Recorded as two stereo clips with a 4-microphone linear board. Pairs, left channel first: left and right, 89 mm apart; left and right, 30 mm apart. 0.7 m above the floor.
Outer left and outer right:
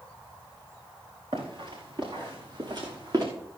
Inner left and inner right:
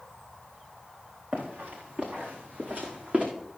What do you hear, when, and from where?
1.3 s running footsteps: 60° right (ahead or behind), 5 m; by 3.2 s 45° right (ahead or behind), 3 m